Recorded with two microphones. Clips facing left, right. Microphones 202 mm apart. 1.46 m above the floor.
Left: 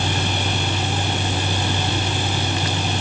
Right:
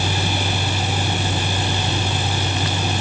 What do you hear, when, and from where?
Only background noise.